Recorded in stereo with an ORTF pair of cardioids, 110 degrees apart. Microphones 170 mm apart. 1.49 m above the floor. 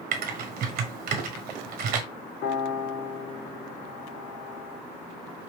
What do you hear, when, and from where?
0.1 s typing on a keyboard: 65° right, 1.0 m
2.4 s a piano: 65° left, 2.5 m